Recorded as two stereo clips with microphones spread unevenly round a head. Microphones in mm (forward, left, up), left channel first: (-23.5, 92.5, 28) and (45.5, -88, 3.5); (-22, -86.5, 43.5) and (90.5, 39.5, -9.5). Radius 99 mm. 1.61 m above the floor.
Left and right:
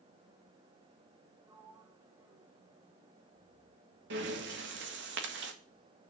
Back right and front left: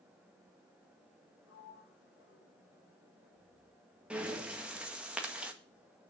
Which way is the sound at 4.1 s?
40° right.